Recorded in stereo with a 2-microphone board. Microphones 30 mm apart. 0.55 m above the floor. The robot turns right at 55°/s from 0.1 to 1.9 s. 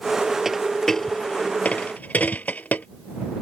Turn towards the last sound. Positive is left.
turn(degrees=60)  # may be behind; listen again after turning